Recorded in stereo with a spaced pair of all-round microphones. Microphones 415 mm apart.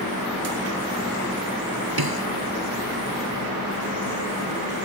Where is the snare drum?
65° right (ahead or behind).